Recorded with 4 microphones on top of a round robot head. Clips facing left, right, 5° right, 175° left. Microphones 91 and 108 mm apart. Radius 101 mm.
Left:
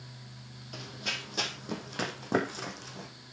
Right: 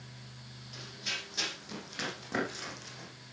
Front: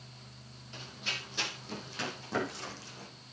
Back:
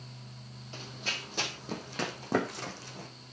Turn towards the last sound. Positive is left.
turn(degrees=140)